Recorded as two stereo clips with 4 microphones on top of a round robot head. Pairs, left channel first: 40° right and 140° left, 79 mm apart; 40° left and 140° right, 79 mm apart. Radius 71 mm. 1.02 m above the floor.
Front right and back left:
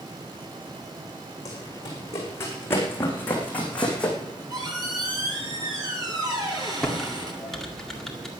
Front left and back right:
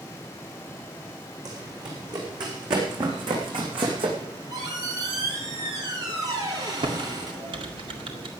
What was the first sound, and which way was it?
Running footsteps, 95° right.